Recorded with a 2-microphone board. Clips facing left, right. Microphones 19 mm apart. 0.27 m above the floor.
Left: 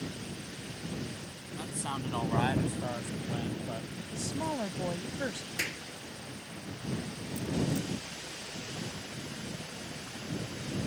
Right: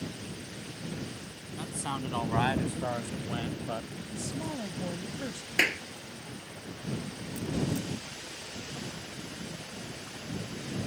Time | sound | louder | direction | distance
1.6 | a man speaking | right 2 dB | 5° right (ahead or behind) | ?
4.1 | a woman speaking | left 2 dB | 40° left (ahead or behind) | ?
5.6 | a clap | right 9 dB | 65° right (ahead or behind) | ?